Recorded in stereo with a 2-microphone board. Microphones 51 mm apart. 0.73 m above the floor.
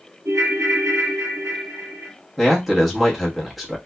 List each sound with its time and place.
0.2 s a ringtone: 90° right, 1.2 m
2.4 s a man speaking: centre (ahead or behind), 0.9 m